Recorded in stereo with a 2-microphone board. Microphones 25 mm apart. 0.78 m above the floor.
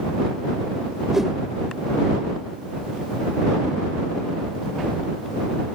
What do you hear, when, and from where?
1.1 s a whoosh: 15° right (ahead or behind)